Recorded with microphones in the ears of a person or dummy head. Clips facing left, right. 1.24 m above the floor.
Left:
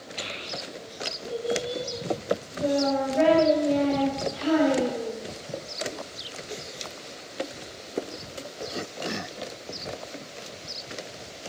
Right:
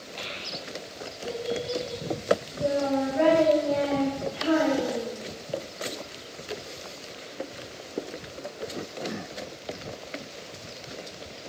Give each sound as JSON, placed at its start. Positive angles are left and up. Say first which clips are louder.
{"t": 0.2, "sound": "a child speaking", "louder": "left 2 dB", "side_deg": 10, "distance_m": 0.8}